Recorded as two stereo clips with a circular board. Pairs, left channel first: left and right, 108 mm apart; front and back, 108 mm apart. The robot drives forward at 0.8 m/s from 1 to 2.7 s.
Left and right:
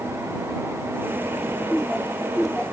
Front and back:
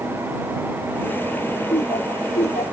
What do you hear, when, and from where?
1.7 s laughter: straight ahead; by 2.7 s 5° left